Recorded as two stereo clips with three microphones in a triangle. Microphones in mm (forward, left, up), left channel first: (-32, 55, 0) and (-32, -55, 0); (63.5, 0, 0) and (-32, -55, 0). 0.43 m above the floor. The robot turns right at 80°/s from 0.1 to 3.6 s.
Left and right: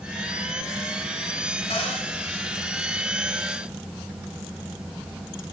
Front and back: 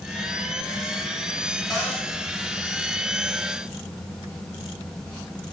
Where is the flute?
No flute in this recording.